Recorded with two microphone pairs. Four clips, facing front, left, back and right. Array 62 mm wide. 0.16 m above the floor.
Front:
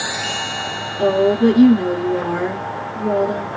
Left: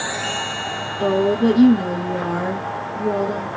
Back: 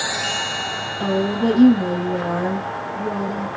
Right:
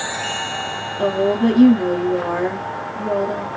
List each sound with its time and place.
1.0 s a woman speaking: 40° right, 2 m